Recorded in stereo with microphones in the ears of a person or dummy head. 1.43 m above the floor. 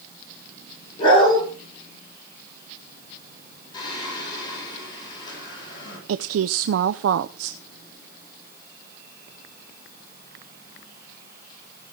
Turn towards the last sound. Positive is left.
turn(degrees=-80)